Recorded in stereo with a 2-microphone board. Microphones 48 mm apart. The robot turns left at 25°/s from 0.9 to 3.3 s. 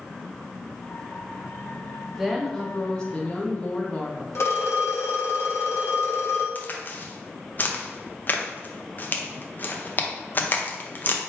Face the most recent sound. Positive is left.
turn(degrees=40)  # may be behind; listen again after turning